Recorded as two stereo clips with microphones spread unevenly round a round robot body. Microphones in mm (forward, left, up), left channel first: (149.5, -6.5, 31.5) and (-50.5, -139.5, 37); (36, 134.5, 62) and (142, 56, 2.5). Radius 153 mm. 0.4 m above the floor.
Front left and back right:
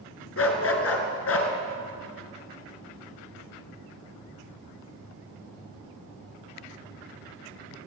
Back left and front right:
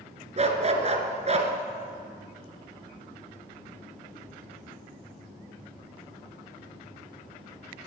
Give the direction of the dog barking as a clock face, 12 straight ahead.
12 o'clock.